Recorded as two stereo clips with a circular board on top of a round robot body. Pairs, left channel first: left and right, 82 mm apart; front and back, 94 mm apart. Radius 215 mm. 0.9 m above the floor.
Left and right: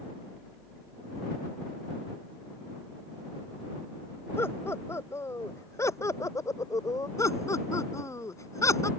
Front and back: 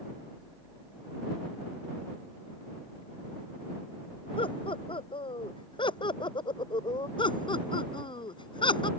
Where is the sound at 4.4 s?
30° left; by 7.1 s 40° left.